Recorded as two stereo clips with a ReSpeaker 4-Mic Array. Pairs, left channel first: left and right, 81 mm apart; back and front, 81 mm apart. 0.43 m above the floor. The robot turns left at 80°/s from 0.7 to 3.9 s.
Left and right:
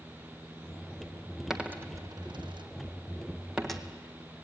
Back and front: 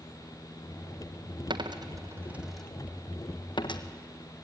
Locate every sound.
1.5 s a dropped coin: 5° right, 1.3 m; by 3.8 s 170° left, 1.3 m